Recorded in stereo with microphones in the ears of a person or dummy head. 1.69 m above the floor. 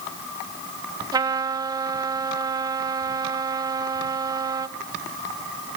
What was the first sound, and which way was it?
A trumpet, 20° right (ahead or behind).